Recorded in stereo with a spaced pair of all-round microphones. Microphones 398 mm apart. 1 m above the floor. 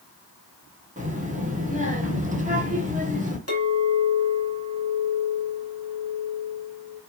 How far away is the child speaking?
About 1.0 m.